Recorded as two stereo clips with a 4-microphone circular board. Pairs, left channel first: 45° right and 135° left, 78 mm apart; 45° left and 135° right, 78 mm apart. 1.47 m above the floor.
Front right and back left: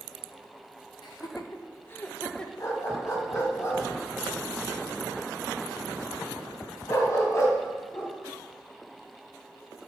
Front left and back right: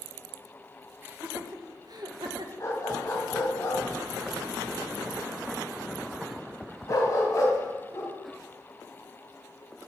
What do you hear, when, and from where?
1.0 s laughter: 70° right, 1.5 m; by 2.5 s 125° right, 1.6 m
2.6 s a dog barking: straight ahead, 3 m